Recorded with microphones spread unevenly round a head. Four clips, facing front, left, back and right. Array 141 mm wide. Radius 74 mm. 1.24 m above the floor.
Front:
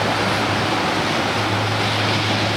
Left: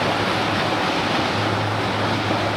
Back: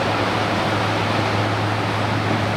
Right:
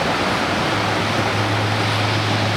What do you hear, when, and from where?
Only background noise.